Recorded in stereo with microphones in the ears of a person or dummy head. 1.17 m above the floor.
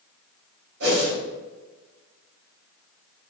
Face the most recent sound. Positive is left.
turn(degrees=-65)  # may be behind; listen again after turning